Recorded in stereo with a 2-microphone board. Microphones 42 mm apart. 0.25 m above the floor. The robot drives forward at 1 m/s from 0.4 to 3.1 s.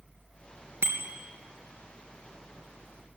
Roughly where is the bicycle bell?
Right.